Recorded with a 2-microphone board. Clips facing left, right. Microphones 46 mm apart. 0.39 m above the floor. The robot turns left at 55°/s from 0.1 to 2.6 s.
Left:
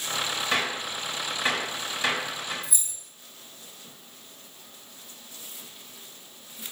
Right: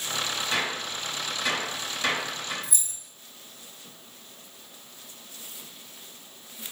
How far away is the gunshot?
About 1.7 m.